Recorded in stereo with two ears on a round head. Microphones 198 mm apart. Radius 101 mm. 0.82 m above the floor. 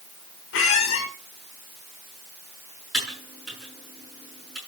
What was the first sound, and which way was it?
A squeak, 65° left (ahead or behind).